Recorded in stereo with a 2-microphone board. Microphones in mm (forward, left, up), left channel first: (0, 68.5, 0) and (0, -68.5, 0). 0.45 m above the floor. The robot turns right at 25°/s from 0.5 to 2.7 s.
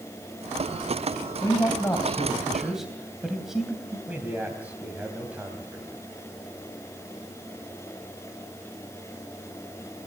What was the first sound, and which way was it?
A man speaking, 150° left.